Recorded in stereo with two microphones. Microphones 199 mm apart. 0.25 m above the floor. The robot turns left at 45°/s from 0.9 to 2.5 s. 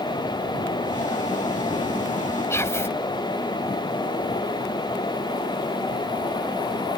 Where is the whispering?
15° left (ahead or behind).